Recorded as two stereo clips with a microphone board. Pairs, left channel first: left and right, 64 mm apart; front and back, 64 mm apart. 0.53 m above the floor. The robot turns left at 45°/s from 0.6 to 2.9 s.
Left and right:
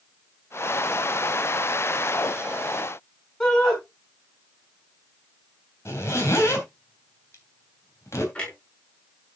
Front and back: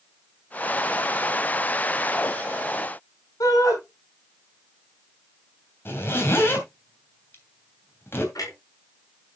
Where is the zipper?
50° left, 3 m.